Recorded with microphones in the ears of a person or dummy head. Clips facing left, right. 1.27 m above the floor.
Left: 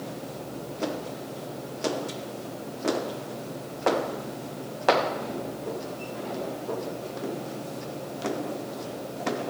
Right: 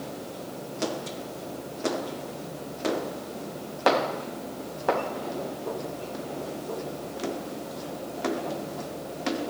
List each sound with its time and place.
Only background noise.